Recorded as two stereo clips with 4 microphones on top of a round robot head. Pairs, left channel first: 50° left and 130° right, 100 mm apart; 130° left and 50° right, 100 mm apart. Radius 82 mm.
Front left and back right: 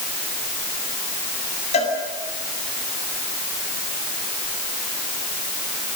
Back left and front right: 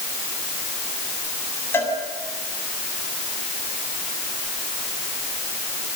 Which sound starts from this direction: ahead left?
A cowbell, at 1.7 s.